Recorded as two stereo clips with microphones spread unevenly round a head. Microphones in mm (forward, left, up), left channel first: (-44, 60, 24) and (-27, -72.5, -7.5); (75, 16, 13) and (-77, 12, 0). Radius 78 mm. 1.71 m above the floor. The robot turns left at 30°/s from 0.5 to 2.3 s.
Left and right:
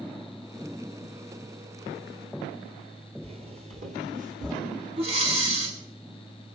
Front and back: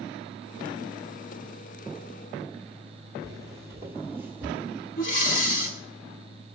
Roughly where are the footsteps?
Behind right.